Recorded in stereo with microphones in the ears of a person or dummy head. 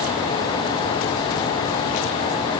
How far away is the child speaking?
I don't hear a child speaking.